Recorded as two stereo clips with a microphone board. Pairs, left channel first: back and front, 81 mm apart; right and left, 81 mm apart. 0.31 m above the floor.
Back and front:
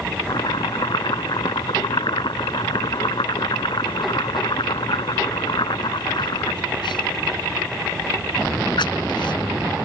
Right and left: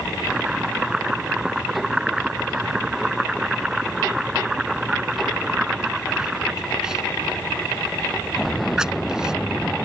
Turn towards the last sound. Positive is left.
turn(degrees=170)